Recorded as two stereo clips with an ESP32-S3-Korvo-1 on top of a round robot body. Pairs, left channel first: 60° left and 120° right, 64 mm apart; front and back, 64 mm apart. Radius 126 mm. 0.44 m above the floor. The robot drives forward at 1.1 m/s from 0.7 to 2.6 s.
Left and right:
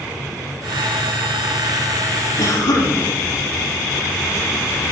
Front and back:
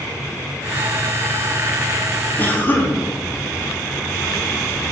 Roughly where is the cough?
Ahead left.